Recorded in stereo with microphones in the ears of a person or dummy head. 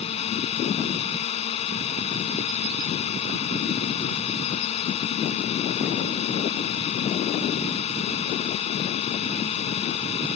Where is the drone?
40° left (ahead or behind).